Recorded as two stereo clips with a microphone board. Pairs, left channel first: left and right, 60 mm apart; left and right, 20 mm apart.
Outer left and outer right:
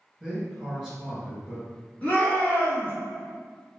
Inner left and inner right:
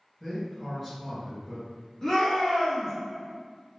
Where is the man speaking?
10° right (ahead or behind), 1.9 m.